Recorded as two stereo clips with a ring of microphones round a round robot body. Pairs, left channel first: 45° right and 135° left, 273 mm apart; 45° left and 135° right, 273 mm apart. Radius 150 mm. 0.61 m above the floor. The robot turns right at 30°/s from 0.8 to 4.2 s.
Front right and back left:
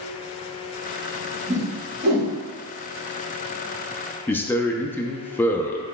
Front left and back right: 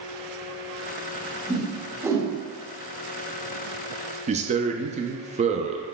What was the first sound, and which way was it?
A whoosh, 130° left.